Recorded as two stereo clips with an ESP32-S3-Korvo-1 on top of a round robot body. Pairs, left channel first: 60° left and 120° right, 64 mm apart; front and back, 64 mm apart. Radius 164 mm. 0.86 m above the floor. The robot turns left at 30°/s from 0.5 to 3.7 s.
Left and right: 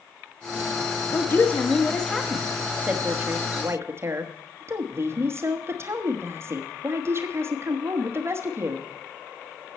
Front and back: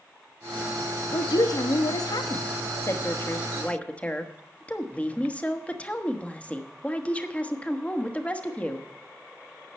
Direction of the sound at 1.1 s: 5° left.